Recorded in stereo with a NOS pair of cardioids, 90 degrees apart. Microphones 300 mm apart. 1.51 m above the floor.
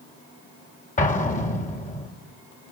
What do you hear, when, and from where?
1.0 s an explosion: 25° left, 4.5 m